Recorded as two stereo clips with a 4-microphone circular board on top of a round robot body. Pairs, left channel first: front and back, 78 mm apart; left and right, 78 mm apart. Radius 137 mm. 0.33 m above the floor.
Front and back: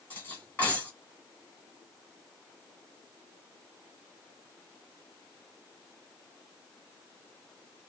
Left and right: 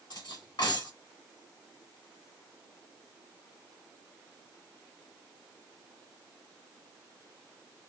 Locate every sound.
0.1 s cutlery clinking: 65° left, 2.5 m